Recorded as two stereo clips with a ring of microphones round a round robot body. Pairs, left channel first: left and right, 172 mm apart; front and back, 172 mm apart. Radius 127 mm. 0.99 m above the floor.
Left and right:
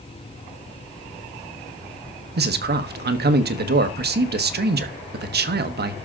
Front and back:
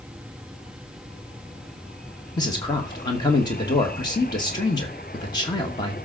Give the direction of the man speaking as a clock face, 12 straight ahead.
2 o'clock.